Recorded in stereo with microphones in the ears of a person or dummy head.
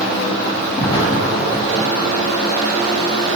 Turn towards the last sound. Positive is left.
turn(degrees=30)  # may be behind; listen again after turning